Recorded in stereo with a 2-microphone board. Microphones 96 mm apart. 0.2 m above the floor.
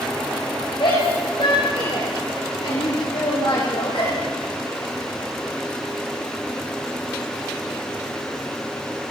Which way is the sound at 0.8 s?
55° left (ahead or behind).